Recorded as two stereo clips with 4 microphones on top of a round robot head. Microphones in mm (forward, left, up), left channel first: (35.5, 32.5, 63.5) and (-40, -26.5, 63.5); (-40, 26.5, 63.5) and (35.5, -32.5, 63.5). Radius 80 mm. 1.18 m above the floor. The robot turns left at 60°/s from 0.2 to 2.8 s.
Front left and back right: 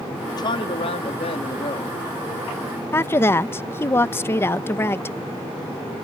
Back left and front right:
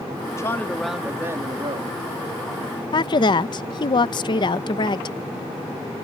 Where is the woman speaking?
105° left.